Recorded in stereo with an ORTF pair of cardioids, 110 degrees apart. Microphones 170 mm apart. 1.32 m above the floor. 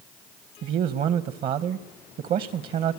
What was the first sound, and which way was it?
A man speaking, 60° right.